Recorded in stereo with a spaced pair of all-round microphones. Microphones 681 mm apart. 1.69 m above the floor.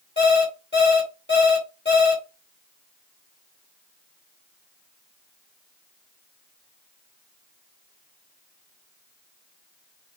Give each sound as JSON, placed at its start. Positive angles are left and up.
{"t": 0.2, "sound": "an alarm clock", "side_deg": 15, "distance_m": 2.0}